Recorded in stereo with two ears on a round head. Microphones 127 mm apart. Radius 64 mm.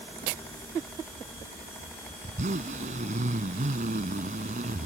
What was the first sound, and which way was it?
A zipper, 50° right (ahead or behind).